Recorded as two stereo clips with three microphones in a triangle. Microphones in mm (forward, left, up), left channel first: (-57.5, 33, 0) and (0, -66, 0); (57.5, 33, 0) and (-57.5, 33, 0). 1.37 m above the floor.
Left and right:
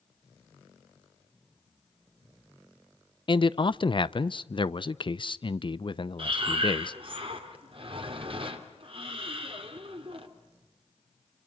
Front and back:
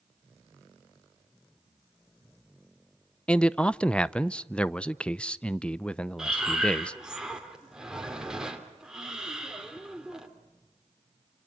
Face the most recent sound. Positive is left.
turn(degrees=-95)